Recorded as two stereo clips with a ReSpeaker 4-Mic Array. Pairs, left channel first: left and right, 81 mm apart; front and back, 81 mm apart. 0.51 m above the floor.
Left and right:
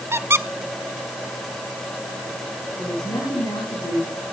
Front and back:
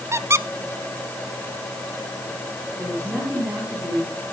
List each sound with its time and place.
0.1 s a squeak: 140° right, 0.5 m
2.8 s a woman speaking: 100° left, 4.5 m